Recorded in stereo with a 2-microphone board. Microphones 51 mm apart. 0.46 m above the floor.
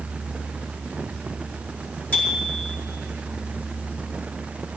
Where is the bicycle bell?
30° left (ahead or behind), 5 m.